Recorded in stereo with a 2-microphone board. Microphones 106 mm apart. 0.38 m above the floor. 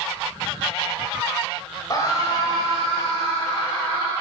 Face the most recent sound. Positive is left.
turn(degrees=50)  # may be behind; listen again after turning